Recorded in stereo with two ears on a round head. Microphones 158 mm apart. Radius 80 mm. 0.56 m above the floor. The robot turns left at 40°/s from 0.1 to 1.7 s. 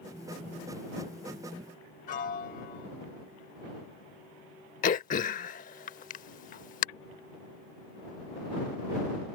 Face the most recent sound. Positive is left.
turn(degrees=50)  # may be behind; listen again after turning